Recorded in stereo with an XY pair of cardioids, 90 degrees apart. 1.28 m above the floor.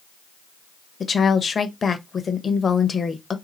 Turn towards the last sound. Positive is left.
turn(degrees=40)